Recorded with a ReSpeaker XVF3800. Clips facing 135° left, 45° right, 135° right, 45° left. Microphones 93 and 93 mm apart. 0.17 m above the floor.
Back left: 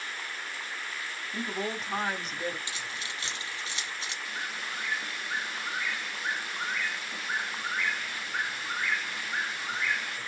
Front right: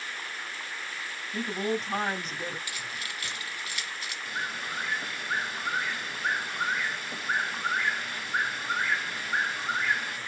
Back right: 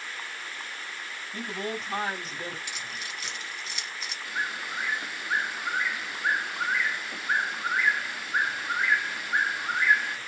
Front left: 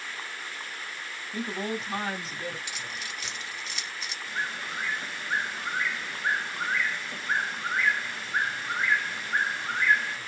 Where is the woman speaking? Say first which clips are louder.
Front right 4 dB, front left 2 dB; 75° left, 1.1 m; by 2.6 s 110° right, 1.3 m.